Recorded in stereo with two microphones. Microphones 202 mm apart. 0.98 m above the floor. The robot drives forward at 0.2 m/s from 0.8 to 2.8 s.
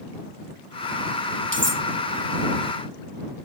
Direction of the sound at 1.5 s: 75° right (ahead or behind).